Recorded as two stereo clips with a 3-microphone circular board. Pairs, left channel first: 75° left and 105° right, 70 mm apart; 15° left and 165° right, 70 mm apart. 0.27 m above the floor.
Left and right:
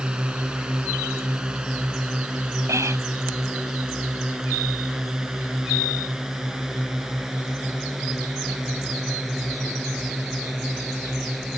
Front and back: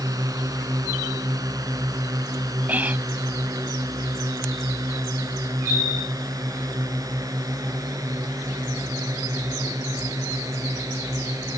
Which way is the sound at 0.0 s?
Straight behind.